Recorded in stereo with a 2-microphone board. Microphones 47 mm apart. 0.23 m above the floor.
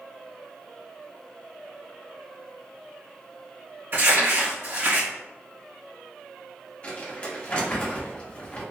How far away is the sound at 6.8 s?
About 0.9 m.